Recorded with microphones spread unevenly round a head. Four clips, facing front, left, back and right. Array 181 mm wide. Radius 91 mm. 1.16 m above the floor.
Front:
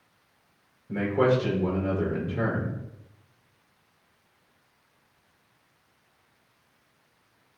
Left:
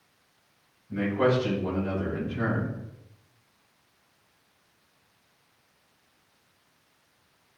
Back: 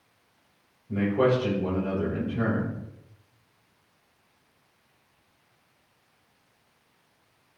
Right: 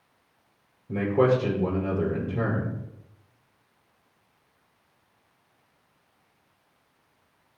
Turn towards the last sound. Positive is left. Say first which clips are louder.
# right 3 dB, even
turn(degrees=-80)